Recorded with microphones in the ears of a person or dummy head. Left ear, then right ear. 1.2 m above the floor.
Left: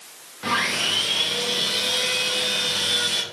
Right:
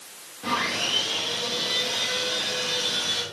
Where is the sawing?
65° left (ahead or behind), 0.8 m.